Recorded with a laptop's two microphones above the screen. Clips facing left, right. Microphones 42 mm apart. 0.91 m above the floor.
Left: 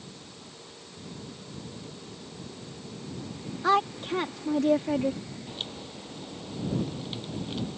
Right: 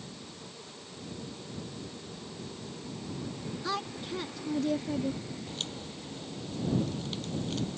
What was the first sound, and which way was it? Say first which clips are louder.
A woman speaking: left 12 dB; 55° left (ahead or behind).